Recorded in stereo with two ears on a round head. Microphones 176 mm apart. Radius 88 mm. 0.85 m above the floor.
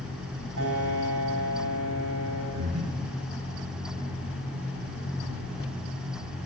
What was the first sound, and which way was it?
A piano, 75° right (ahead or behind).